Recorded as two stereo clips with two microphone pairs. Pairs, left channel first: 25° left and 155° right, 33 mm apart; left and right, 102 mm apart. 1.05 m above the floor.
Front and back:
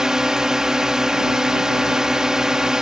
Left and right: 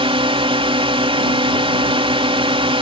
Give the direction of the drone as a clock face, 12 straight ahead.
3 o'clock.